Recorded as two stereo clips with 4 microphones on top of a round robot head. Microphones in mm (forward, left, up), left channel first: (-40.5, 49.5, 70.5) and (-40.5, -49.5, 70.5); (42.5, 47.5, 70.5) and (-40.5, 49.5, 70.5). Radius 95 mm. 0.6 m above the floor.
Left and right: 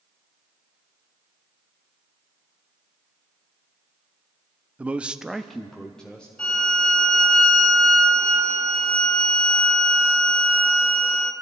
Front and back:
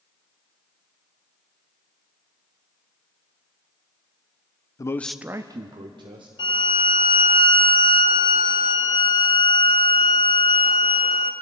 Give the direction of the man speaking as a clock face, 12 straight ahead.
1 o'clock.